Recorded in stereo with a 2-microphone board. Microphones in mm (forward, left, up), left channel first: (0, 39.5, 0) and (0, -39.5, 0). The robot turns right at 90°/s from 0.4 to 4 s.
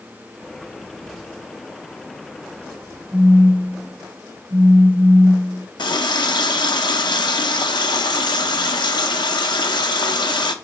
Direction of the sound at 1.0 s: 20° right (ahead or behind).